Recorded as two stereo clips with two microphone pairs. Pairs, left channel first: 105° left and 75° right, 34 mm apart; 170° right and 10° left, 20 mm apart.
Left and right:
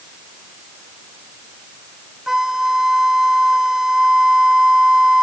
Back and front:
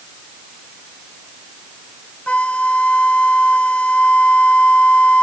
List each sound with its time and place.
2.3 s a flute: 155° right